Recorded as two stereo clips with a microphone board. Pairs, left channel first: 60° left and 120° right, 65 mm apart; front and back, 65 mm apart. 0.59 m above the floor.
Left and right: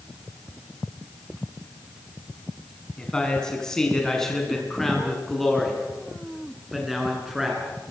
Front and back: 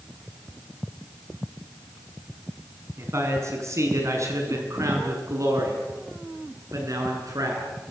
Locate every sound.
3.0 s a man speaking: 135° left, 6.5 m; by 7.6 s 155° left, 8 m